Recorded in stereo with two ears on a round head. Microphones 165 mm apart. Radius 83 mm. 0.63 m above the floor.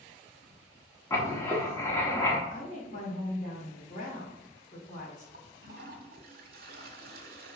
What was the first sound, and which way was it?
Writing, 15° left (ahead or behind).